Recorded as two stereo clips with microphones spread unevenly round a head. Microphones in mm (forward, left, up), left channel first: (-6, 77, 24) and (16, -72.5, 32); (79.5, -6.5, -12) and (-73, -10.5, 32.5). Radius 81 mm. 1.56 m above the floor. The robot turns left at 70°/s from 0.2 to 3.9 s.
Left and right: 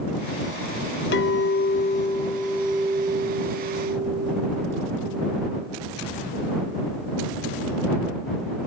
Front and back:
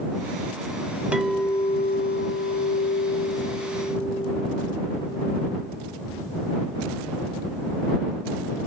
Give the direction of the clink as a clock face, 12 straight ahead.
8 o'clock.